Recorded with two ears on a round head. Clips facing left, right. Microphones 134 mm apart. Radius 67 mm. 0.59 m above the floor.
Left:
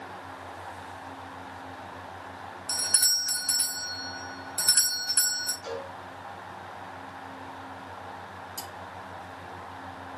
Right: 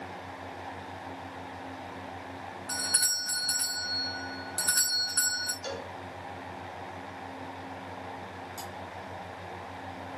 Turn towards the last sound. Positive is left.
turn(degrees=35)  # may be behind; listen again after turning